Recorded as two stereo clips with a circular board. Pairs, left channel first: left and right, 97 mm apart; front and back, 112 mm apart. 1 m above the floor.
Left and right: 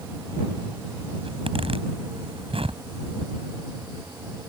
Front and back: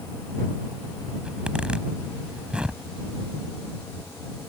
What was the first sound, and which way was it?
A zipper, 100° right.